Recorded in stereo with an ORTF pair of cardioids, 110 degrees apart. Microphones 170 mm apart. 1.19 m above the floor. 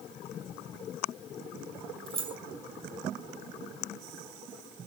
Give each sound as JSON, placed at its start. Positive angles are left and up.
{"t": 2.1, "sound": "keys jangling", "azimuth_deg": -30, "distance_m": 1.0}